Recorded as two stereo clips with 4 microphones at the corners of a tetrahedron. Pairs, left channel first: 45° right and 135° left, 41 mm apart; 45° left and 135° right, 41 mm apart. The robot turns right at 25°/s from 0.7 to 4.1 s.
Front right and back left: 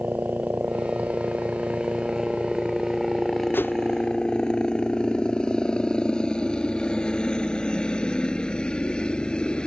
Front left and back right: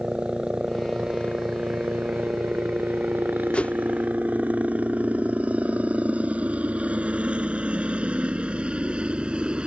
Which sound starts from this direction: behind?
A helicopter, at 0.0 s.